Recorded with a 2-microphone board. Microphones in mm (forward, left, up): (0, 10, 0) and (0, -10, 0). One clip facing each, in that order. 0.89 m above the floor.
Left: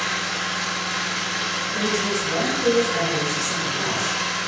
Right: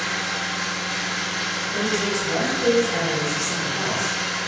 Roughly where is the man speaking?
Right.